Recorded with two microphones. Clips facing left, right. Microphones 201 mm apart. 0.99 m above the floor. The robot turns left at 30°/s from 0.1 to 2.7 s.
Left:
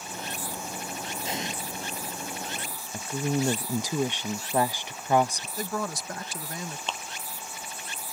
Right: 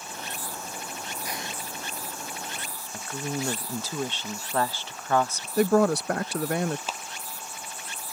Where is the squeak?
No squeak in this recording.